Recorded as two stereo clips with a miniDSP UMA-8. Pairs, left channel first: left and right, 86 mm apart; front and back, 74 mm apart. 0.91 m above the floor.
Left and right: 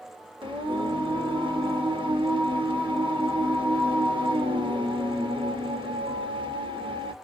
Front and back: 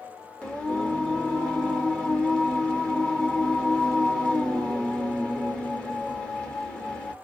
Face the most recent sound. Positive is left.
turn(degrees=-80)